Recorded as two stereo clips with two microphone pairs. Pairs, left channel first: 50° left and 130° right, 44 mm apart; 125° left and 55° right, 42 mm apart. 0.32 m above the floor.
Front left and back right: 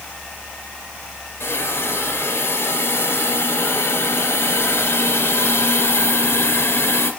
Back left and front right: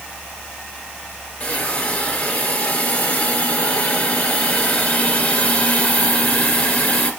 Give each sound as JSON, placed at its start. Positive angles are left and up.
{"t": 1.4, "sound": "a hiss", "azimuth_deg": 75, "distance_m": 2.5}